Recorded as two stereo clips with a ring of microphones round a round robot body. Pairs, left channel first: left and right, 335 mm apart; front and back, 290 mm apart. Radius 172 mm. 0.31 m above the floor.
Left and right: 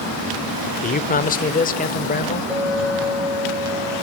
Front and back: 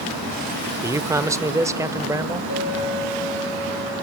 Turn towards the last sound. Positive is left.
turn(degrees=-5)